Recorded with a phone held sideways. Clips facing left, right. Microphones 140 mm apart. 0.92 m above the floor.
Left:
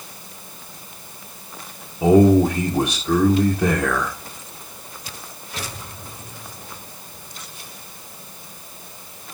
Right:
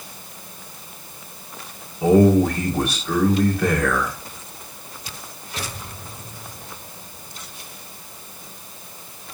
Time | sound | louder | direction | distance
2.0 | a man speaking | left 1 dB | 20° left (ahead or behind) | 2 m